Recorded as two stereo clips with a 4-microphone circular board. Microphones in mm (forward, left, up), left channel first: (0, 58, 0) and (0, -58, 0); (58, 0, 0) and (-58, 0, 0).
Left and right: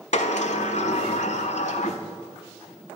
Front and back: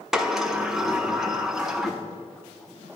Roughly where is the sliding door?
Left.